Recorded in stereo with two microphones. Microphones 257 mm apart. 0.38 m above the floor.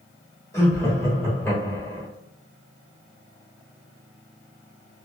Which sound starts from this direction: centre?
Laughter, at 0.5 s.